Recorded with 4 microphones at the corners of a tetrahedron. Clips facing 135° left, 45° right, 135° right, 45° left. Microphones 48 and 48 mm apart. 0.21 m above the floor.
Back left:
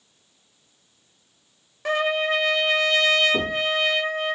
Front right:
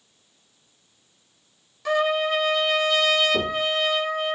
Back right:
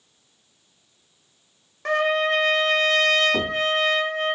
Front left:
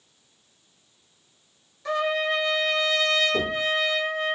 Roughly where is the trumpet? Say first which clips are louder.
Front right 1 dB, back right 4 dB; behind.